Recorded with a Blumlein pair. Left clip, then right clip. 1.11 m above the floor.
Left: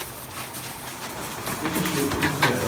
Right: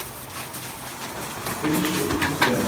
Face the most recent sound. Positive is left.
turn(degrees=50)